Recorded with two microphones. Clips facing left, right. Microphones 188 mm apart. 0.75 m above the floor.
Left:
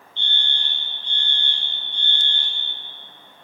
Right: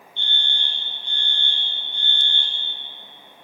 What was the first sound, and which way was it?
A fire alarm, 50° right (ahead or behind).